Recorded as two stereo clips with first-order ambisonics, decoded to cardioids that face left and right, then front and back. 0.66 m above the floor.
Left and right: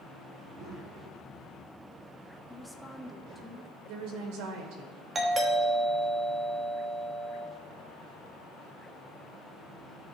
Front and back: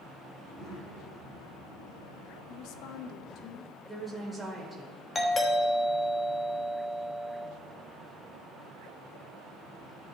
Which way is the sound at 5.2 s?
50° right.